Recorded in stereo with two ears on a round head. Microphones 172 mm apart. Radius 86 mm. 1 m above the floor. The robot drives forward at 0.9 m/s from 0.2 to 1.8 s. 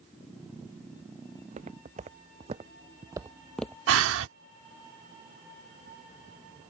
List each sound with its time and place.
1.4 s footsteps: 35° right (ahead or behind); by 3.8 s 15° left (ahead or behind)
3.9 s breathing: 75° right (ahead or behind)